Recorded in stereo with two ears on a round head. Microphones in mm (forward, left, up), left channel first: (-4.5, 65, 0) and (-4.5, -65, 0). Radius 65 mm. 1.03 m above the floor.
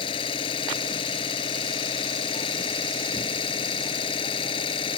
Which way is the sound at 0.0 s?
35° left (ahead or behind).